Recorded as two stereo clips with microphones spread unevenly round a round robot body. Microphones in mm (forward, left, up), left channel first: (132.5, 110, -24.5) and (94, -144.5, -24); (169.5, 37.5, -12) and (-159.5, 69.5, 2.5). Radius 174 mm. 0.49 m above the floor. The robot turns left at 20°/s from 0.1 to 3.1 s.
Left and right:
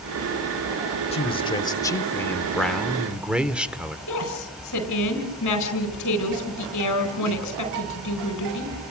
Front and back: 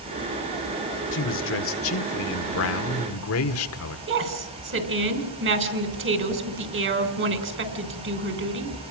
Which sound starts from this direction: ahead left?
A man speaking, at 1.1 s.